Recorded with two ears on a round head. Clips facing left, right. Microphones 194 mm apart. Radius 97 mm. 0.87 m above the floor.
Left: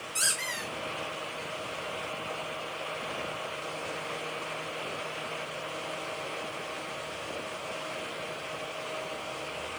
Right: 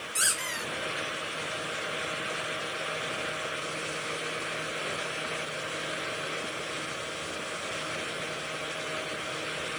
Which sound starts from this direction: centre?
A squeak, at 0.1 s.